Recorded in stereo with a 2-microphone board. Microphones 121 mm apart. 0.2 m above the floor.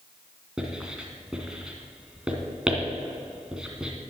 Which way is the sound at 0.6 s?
5° right (ahead or behind).